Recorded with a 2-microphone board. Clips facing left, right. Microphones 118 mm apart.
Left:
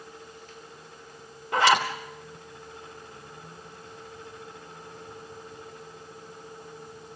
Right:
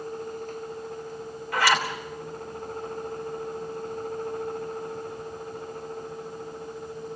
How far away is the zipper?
About 3 m.